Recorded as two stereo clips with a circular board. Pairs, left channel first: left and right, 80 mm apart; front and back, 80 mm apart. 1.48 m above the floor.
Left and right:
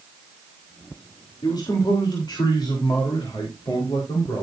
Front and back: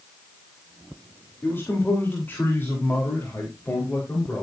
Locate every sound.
1.4 s a man speaking: 60° left, 3.5 m; by 4.4 s 70° left, 5 m